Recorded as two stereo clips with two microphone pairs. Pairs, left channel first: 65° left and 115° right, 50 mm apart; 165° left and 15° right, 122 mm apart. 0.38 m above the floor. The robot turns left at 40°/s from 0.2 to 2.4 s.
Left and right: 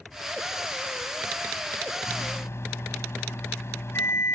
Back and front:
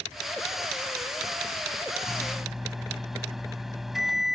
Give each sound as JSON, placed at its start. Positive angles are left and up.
{"t": 2.1, "sound": "a microwave", "azimuth_deg": 85}